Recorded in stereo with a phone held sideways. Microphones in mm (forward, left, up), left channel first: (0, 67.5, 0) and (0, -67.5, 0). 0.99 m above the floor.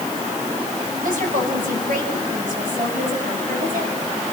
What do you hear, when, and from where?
1.0 s a woman speaking: 85° right, 6.5 m; by 4.3 s 80° right, 8.5 m